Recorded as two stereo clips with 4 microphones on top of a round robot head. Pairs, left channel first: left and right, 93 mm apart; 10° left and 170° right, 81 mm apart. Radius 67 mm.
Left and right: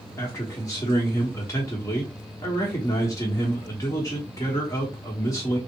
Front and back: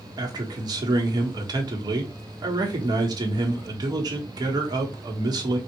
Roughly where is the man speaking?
Behind left.